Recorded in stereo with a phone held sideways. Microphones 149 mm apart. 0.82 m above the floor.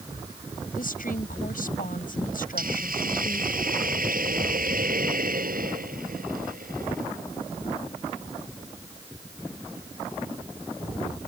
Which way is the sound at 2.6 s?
85° right.